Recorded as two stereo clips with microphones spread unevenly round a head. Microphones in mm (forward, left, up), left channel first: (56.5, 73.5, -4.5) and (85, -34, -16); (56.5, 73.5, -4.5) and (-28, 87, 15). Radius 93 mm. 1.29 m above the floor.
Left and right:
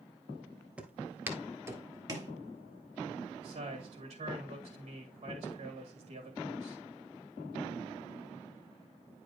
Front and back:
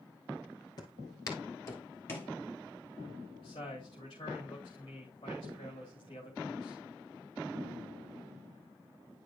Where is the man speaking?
70° right, 3 m.